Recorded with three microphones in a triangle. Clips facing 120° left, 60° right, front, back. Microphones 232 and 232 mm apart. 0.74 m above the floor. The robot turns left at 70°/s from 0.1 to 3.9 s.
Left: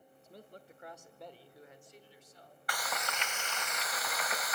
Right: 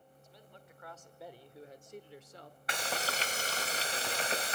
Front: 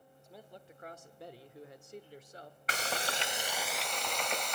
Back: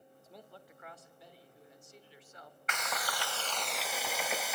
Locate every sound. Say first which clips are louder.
0.2 s a man speaking: left 7 dB, front 2 dB; 95° left, 2 m; by 2.6 s 70° right, 2 m
2.7 s frying: right 3 dB, front 3 dB; 15° right, 0.7 m; by 4.5 s 100° right, 0.7 m